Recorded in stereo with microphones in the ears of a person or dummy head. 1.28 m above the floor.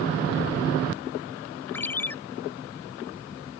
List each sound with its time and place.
1.7 s a ringtone: 10° left (ahead or behind)